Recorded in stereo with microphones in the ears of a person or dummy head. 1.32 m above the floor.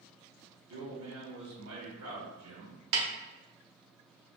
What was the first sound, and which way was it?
A man speaking, 80° right.